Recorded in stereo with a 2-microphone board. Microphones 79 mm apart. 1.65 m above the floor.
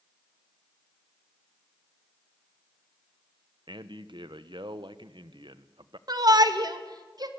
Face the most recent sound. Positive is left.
turn(degrees=-55)  # may be behind; listen again after turning